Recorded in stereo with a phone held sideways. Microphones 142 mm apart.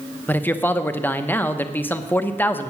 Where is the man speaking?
15° left (ahead or behind), 0.9 m.